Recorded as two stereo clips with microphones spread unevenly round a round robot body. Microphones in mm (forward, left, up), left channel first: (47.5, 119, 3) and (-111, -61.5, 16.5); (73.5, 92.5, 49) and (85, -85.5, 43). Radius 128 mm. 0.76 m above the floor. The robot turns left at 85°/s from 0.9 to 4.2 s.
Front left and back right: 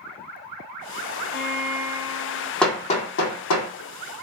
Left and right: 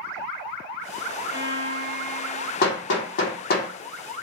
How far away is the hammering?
About 1.4 m.